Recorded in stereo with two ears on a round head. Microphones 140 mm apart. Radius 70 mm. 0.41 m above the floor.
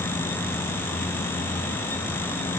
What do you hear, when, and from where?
Only background noise.